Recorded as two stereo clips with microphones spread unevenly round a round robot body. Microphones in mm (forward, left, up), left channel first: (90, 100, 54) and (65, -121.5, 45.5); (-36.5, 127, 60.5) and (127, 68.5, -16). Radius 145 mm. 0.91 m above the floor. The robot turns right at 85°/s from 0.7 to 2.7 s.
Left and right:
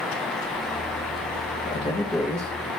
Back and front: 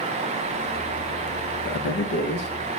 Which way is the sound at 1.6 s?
130° left.